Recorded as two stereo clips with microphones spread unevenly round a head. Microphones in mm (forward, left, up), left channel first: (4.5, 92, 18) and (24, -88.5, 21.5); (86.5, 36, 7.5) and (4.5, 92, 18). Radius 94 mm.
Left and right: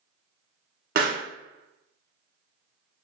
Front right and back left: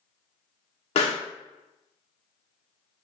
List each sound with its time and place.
0.9 s a pop: 50° right, 1.0 m